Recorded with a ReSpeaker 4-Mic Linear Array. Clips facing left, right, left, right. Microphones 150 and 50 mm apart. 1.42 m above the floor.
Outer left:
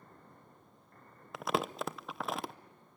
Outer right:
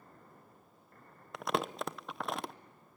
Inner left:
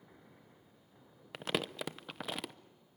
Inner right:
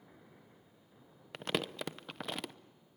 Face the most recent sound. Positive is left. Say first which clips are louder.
# even, even
turn(degrees=0)  # may be behind; listen again after turning